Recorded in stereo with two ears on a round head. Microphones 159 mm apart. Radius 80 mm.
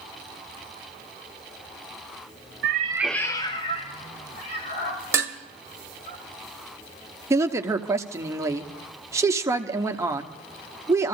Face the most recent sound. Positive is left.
turn(degrees=-15)  # may be behind; listen again after turning